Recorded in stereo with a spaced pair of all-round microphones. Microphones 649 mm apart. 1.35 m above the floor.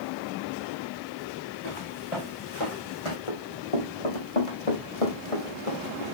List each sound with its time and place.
1.6 s footsteps: 45° left (ahead or behind), 6 m; by 3.2 s 50° left (ahead or behind), 4 m
3.3 s running footsteps: 50° left (ahead or behind), 4 m; by 6.0 s 55° left (ahead or behind), 2.5 m